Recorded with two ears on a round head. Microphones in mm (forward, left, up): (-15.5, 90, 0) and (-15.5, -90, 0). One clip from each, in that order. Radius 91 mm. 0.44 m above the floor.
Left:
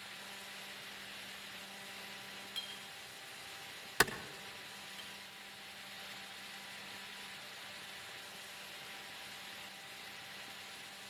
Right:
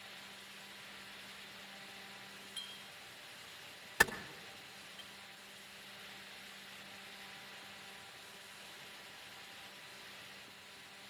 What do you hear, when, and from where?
2.6 s a clink: 70° left (ahead or behind), 3.5 m
4.0 s a clap: 30° left (ahead or behind), 1.0 m